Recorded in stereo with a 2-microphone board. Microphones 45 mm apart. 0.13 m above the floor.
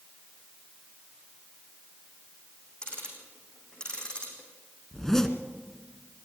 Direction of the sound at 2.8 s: 20° left (ahead or behind).